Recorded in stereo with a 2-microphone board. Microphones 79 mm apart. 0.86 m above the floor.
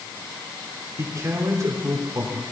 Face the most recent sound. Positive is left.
turn(degrees=-40)  # may be behind; listen again after turning